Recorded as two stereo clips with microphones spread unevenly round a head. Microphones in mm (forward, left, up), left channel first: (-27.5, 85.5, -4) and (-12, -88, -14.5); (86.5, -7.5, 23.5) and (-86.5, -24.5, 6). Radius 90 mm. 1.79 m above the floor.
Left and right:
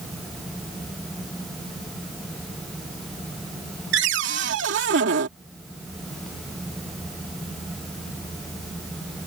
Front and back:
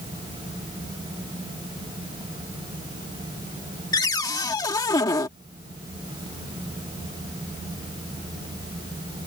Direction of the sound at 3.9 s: 60° right.